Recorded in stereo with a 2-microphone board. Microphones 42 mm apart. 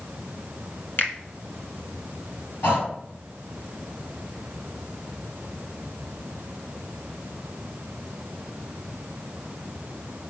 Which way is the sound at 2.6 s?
65° left (ahead or behind).